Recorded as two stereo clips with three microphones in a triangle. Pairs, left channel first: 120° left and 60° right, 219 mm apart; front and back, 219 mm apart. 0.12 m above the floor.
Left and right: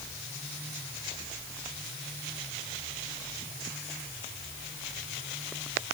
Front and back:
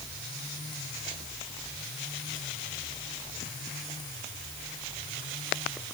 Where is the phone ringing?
No phone ringing in this recording.